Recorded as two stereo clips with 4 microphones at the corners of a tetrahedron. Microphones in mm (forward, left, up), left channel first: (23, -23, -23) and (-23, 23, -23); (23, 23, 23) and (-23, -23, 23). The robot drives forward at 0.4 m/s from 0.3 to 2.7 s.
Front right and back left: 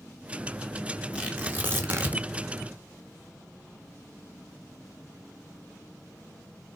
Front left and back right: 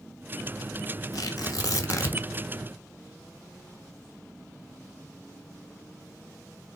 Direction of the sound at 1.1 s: 65° left.